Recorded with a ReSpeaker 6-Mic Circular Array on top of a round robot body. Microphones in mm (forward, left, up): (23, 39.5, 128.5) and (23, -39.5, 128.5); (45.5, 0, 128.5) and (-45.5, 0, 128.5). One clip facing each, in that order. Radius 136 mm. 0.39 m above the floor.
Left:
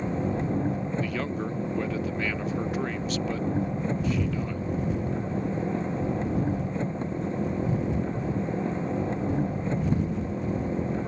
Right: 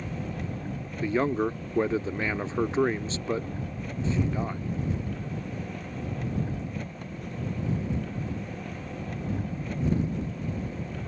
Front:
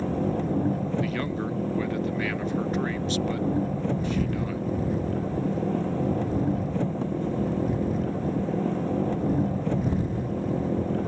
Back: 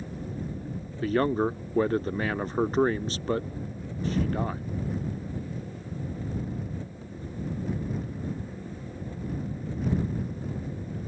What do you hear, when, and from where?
0.0 s an engine running: 25° left
1.0 s a man speaking: 140° right